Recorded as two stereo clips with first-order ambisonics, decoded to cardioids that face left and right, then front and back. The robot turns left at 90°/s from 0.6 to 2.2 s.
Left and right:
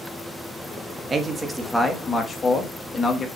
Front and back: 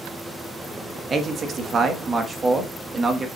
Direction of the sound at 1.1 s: 130° right.